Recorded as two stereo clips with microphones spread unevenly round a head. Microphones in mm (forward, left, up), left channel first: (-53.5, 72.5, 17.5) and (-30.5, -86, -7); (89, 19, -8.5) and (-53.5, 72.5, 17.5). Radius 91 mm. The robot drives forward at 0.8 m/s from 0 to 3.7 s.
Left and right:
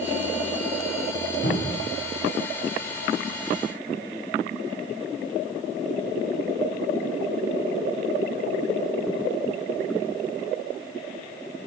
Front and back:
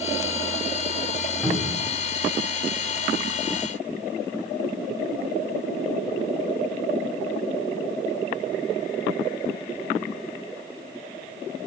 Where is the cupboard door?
60° left, 3 m; by 1.9 s 65° left, 3 m.